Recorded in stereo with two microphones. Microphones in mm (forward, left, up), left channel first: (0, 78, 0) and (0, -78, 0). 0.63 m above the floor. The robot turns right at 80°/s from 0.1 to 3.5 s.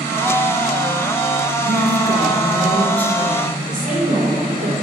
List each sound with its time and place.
1.6 s a woman speaking: 95° right, 1.1 m; by 3.6 s 55° left, 1.1 m
3.7 s a woman speaking: 55° right (ahead or behind), 2.5 m